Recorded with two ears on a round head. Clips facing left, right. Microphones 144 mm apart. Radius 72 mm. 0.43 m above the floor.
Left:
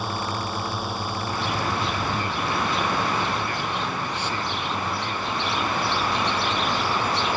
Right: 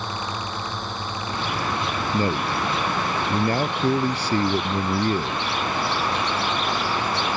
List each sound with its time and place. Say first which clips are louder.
0.0 s a drone: left 2 dB; 10° left (ahead or behind)
2.1 s a man speaking: right 3 dB; 35° right (ahead or behind)